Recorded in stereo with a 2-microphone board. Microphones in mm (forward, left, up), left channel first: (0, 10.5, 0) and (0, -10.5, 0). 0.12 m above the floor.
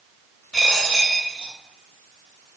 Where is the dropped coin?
60° left (ahead or behind), 1.3 m.